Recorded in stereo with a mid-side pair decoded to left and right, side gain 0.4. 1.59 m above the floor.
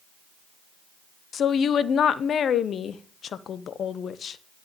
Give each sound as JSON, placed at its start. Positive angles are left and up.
{"t": 1.3, "sound": "a woman speaking", "azimuth_deg": 60, "distance_m": 0.8}